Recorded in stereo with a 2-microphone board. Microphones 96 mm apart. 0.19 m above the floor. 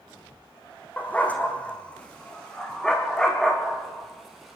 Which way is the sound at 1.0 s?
15° left (ahead or behind).